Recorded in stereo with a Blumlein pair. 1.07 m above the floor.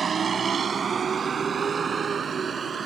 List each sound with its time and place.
0.0 s a vehicle: 20° right